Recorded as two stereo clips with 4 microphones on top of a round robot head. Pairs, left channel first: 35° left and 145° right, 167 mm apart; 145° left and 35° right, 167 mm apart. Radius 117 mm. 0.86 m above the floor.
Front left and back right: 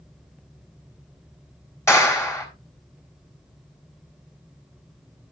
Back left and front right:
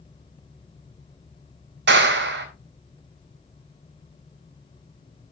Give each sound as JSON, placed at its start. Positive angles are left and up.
{"t": 1.9, "sound": "a clap", "azimuth_deg": -40, "distance_m": 4.0}